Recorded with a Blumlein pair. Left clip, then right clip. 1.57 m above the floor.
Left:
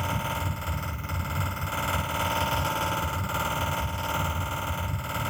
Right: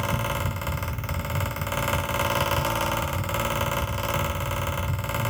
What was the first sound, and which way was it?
A fan, 65° right.